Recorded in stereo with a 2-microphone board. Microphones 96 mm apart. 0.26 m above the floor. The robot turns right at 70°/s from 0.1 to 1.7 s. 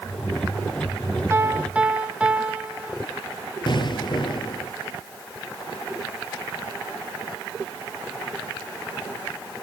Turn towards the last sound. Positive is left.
turn(degrees=55)  # may be behind; listen again after turning